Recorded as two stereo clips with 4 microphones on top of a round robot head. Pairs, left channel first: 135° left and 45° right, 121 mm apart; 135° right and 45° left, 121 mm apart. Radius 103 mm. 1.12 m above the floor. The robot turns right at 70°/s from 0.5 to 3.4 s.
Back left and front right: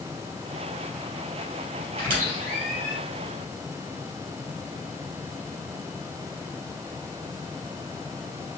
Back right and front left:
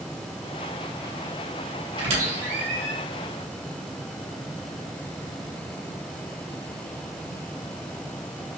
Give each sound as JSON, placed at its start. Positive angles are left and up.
{"t": 2.0, "sound": "a squeak", "azimuth_deg": -5, "distance_m": 2.5}